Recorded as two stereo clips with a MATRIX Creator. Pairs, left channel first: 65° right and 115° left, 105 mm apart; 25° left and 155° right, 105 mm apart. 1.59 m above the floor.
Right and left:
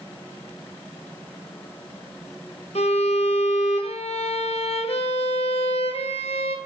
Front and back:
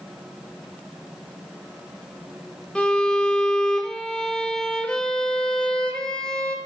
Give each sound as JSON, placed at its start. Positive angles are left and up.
{"t": 2.8, "sound": "a violin", "azimuth_deg": -60, "distance_m": 1.2}